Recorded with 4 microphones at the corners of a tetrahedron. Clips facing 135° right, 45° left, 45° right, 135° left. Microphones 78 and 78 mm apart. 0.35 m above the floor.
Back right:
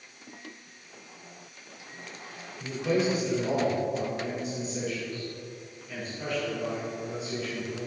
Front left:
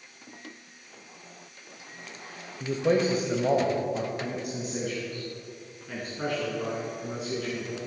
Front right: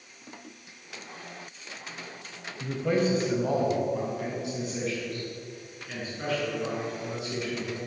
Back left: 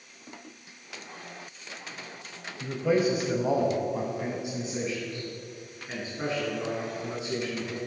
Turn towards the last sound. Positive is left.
turn(degrees=75)